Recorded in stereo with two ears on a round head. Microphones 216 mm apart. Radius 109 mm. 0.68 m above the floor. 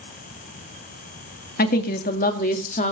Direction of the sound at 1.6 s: 40° left (ahead or behind).